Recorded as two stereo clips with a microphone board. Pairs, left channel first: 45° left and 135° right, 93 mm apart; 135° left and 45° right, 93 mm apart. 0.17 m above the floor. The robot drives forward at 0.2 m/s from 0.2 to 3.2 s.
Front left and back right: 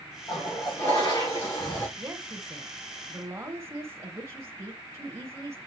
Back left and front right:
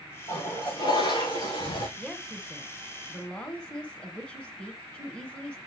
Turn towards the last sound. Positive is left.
turn(degrees=-160)